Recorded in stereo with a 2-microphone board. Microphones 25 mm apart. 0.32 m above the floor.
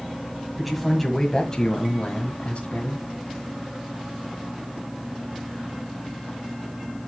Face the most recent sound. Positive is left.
turn(degrees=60)  # may be behind; listen again after turning